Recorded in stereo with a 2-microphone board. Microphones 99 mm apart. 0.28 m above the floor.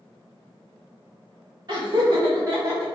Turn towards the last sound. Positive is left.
turn(degrees=-25)  # may be behind; listen again after turning